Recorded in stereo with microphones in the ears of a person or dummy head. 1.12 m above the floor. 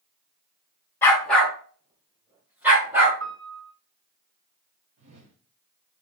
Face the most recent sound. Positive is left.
turn(degrees=-45)  # may be behind; listen again after turning